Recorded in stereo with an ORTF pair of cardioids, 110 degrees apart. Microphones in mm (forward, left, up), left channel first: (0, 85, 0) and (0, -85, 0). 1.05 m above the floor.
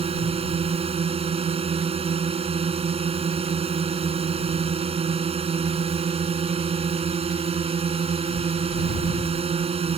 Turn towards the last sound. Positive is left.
turn(degrees=-35)